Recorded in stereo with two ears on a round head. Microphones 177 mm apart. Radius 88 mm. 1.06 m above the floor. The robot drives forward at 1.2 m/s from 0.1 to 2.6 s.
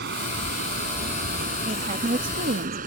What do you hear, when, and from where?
0.0 s running water: 60° right (ahead or behind); by 2.9 s 45° right (ahead or behind)
1.6 s a woman speaking: 30° right (ahead or behind); by 2.8 s 50° right (ahead or behind)